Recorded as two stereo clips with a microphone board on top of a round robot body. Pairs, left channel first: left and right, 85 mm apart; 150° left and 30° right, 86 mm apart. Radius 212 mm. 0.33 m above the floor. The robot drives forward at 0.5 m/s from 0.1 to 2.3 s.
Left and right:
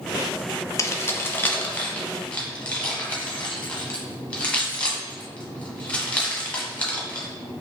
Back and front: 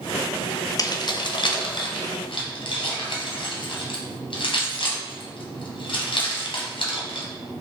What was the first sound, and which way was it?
Keys jangling, 130° left.